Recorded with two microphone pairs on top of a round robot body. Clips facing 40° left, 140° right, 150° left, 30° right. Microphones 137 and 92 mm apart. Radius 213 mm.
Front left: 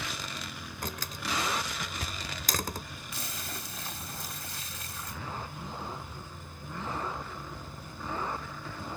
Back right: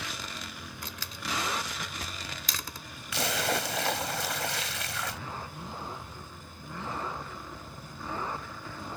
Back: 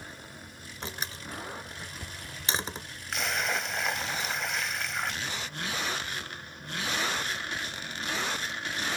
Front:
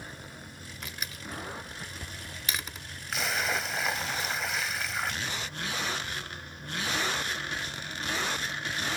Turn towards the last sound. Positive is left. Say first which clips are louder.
# back right 14 dB, even
turn(degrees=-115)